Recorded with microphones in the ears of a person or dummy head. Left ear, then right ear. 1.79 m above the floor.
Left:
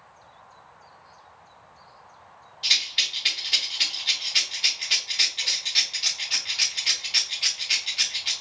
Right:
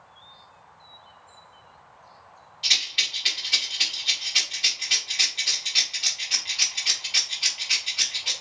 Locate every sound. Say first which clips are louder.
2.6 s a rattle: even; 5° left (ahead or behind), 1.2 m